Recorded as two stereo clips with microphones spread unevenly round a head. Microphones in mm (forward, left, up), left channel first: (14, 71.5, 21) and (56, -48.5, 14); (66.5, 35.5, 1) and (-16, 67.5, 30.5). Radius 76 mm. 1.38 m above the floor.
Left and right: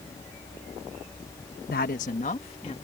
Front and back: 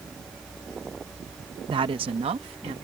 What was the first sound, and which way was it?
A woman speaking, 135° left.